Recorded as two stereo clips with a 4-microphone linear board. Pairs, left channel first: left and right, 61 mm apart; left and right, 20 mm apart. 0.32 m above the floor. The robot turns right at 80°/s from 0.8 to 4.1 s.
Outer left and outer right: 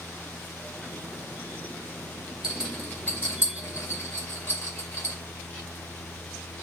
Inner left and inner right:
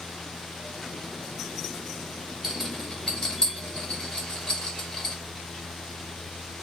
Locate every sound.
2.4 s a rattle: 10° right (ahead or behind), 1.8 m; by 5.2 s 45° left (ahead or behind), 1.8 m